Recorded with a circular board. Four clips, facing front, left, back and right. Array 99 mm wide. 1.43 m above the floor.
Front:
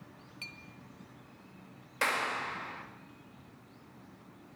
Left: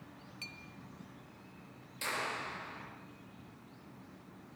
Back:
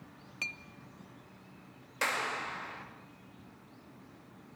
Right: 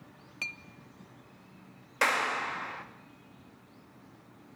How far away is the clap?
About 2.5 m.